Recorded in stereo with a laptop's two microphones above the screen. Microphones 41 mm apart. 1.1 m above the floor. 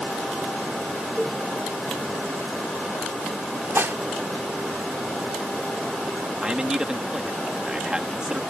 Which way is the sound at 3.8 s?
65° right (ahead or behind).